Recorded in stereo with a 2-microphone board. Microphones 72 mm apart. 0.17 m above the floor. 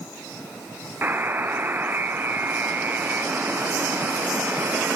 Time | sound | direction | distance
1.0 | a buzzer | 30° right (ahead or behind) | 1.8 m